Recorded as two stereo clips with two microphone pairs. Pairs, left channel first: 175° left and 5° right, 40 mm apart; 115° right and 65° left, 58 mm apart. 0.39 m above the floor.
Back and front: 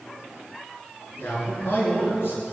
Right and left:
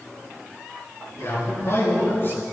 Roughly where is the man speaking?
Behind right.